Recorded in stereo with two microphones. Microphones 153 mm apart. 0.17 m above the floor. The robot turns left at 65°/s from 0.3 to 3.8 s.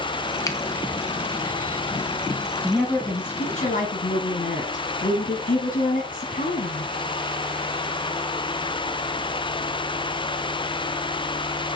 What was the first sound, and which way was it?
A finger snap, 20° left (ahead or behind).